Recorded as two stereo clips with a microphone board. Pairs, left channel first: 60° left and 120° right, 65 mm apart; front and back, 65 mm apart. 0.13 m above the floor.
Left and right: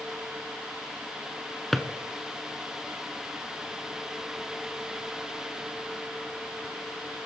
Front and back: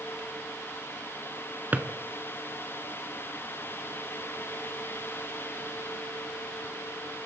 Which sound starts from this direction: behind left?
A drawer, at 1.7 s.